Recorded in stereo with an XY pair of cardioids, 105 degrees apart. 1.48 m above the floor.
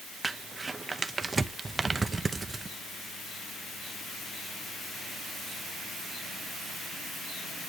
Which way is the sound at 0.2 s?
20° right.